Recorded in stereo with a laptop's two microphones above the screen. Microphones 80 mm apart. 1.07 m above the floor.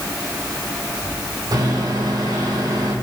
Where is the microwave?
70° right (ahead or behind), 4.5 m.